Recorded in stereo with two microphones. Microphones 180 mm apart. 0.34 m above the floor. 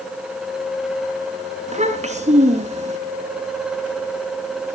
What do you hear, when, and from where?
1.7 s a child speaking: 40° right (ahead or behind), 3 m